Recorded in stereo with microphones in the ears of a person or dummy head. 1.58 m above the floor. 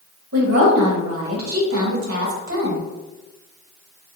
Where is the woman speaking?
75° right (ahead or behind), 0.9 m.